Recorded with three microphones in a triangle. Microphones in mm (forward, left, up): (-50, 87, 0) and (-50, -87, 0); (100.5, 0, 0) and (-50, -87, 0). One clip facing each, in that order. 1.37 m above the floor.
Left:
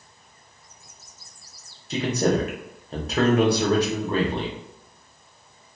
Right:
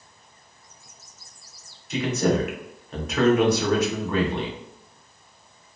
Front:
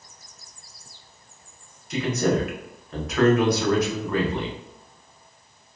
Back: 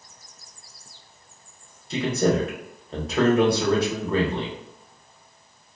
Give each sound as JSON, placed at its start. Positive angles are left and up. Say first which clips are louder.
{"t": 1.9, "sound": "a man speaking", "louder": "even, back 1 dB", "azimuth_deg": 150, "distance_m": 1.0}